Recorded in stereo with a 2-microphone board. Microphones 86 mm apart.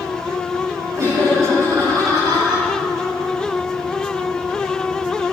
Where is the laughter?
45° right (ahead or behind), 7.5 m; by 2.7 s 60° right (ahead or behind), 7 m.